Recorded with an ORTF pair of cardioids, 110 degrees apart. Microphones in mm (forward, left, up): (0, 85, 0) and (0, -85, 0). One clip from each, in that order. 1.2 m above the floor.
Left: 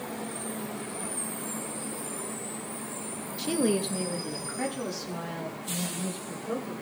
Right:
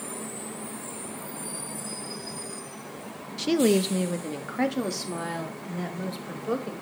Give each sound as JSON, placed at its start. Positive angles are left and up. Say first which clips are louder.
{"t": 3.4, "sound": "a woman speaking", "louder": "right 5 dB", "azimuth_deg": -20, "distance_m": 0.7}